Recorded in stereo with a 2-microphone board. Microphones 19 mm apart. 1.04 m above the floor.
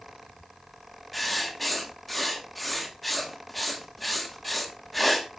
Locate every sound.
1.1 s writing: centre (ahead or behind), 2.5 m